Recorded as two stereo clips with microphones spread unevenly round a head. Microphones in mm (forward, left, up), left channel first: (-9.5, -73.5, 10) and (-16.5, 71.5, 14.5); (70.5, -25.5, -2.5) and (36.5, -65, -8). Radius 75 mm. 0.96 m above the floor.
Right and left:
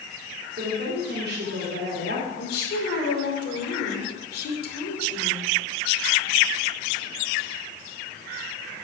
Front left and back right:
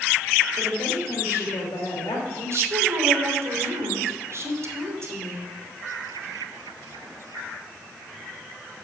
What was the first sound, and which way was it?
A woman speaking, 70° left.